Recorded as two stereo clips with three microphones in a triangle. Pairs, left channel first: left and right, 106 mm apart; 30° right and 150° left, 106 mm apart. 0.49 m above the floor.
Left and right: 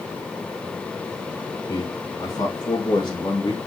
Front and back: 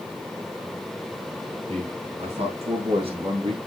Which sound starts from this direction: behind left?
A man speaking, at 1.7 s.